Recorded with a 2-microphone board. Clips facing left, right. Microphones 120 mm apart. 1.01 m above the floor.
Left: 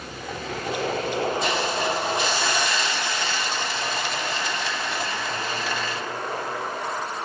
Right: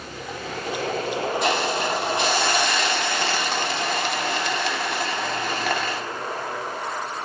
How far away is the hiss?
About 1.3 m.